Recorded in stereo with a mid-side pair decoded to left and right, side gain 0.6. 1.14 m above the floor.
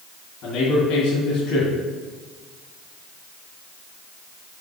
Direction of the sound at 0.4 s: 65° left.